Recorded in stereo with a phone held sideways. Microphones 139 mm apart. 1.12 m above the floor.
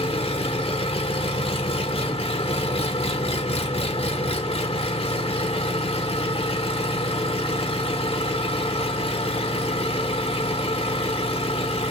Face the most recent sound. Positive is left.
turn(degrees=45)  # may be behind; listen again after turning